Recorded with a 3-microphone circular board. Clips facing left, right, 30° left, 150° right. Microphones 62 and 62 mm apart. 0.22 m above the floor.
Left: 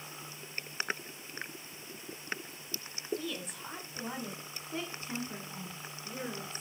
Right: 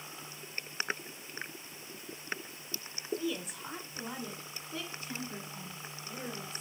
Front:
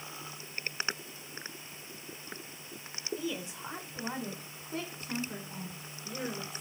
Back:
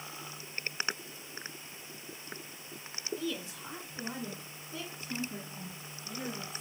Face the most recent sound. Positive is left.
turn(degrees=45)